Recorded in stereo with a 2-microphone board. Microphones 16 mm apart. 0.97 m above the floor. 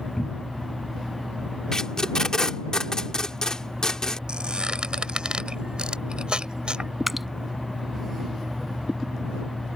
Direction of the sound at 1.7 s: 35° left (ahead or behind).